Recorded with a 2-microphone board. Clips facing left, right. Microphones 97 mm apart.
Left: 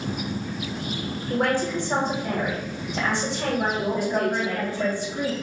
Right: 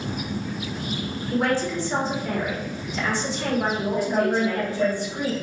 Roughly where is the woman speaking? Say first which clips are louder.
Right 2 dB; right.